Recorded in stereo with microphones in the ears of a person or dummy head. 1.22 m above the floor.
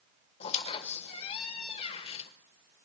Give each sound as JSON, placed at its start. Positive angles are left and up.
{"t": 0.4, "sound": "a squeak", "side_deg": 30, "distance_m": 0.9}